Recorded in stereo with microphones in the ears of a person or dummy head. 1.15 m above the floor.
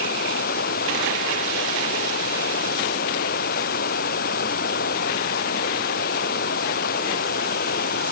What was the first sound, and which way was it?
Running water, 50° left (ahead or behind).